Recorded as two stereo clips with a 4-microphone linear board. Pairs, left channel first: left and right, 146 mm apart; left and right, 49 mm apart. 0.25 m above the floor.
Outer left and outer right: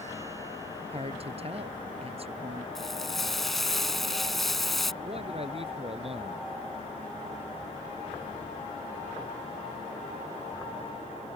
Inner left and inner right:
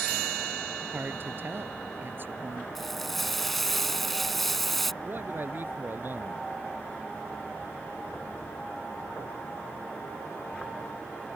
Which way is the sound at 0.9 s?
45° right (ahead or behind).